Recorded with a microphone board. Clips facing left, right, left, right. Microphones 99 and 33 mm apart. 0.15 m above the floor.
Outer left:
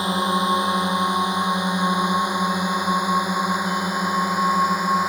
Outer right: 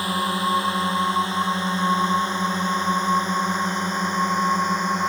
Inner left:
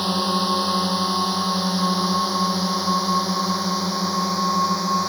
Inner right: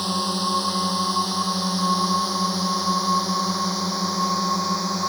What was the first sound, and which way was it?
A drone, 20° left (ahead or behind).